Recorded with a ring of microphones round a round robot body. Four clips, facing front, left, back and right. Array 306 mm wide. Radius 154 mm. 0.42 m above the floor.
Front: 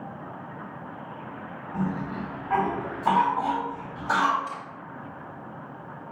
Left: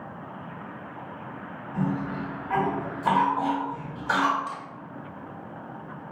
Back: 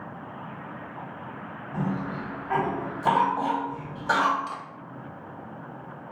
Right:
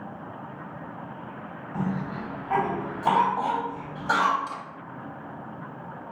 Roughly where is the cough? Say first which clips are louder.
Left 2 dB, even; behind.